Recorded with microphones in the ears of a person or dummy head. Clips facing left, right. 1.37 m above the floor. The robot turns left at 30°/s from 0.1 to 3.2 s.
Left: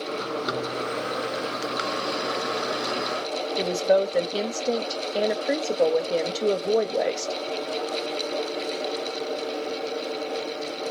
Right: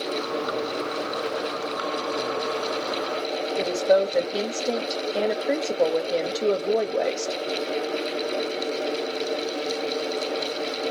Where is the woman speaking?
Centre (ahead or behind), 0.9 m.